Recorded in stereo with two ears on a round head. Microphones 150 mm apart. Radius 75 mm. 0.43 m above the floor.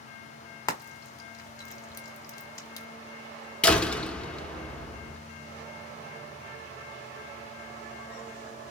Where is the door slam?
5° left (ahead or behind), 0.6 m.